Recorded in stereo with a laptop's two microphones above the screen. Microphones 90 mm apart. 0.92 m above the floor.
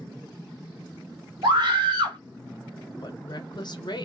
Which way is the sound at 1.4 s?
60° right (ahead or behind).